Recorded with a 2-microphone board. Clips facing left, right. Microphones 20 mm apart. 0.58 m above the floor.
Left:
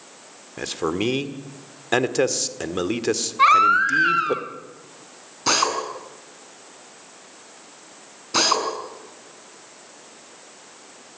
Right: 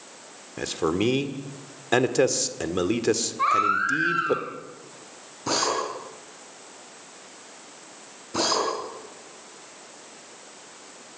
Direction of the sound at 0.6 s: 10° left (ahead or behind).